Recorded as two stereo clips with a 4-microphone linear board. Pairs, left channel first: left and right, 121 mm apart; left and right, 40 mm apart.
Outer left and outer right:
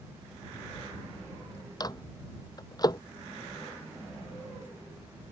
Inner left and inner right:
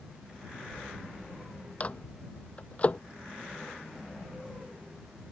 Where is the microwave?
35° left (ahead or behind).